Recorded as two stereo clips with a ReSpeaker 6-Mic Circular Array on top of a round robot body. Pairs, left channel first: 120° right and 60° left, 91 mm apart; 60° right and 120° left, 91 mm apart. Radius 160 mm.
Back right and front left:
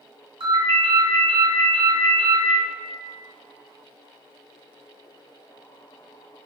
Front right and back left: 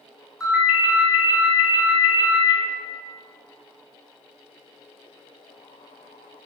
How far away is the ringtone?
About 2.0 m.